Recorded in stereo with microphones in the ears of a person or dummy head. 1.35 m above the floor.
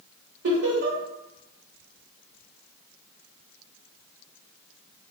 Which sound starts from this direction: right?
Laughter, at 0.4 s.